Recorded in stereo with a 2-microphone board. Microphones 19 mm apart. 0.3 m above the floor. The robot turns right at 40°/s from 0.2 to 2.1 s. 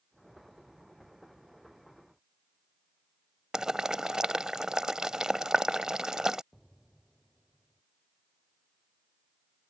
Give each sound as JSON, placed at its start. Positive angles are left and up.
{"t": 3.5, "sound": "boiling", "side_deg": -40}
{"t": 6.5, "sound": "an explosion", "side_deg": 10}